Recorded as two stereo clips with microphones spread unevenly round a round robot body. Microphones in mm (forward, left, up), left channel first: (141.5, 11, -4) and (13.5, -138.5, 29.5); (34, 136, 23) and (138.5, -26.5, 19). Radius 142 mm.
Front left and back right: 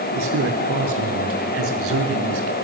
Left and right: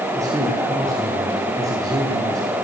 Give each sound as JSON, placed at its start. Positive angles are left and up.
{"t": 0.1, "sound": "a man speaking", "azimuth_deg": -135, "distance_m": 5.5}